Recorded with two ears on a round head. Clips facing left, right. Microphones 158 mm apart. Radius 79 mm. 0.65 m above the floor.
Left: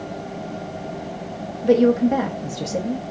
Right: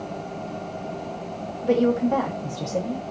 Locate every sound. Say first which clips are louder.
1.6 s a woman speaking: left 4 dB; 20° left (ahead or behind), 0.7 m